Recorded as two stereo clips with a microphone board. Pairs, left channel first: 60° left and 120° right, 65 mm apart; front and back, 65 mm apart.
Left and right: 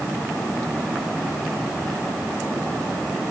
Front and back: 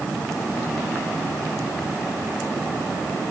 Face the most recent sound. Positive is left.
No sound to turn to.